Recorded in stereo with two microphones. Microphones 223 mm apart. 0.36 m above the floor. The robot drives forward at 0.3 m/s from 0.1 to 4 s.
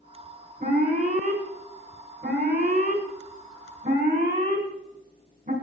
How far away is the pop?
No pop in this recording.